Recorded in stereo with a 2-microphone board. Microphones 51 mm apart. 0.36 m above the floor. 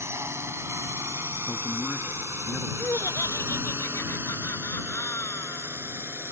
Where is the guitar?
No guitar in this recording.